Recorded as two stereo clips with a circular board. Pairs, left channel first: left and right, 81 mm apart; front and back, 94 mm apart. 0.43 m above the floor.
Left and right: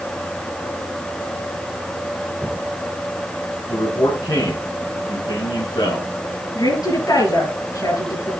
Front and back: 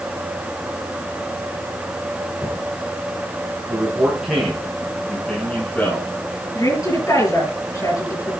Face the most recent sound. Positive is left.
turn(degrees=55)